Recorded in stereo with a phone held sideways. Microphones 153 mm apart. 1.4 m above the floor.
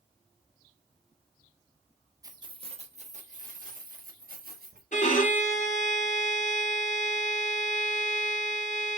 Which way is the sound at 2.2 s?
25° right (ahead or behind).